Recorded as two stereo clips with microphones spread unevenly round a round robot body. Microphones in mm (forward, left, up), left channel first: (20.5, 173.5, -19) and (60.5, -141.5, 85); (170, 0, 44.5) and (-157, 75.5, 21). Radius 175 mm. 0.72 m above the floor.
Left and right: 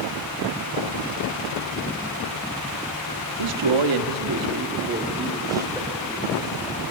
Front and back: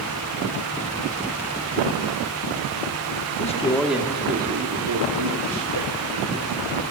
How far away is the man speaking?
About 1.6 m.